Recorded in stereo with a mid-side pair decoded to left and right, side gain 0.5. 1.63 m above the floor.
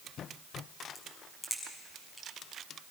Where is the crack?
10° left, 6.5 m.